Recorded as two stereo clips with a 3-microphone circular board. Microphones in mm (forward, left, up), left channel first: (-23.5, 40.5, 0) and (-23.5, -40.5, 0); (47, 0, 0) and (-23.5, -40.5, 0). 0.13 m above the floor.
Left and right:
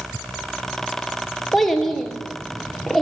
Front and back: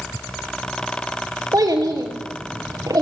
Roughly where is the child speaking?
Behind.